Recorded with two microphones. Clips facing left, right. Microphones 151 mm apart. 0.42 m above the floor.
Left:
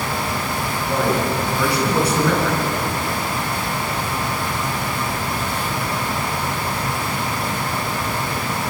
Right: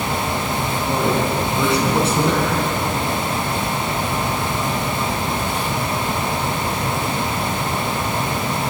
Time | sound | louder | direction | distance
0.9 | a man speaking | even | 25° right (ahead or behind) | 5.5 m